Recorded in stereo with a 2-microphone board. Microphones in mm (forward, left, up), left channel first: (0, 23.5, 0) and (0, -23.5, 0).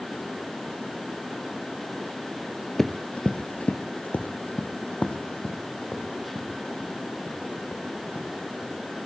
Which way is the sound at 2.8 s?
5° left (ahead or behind).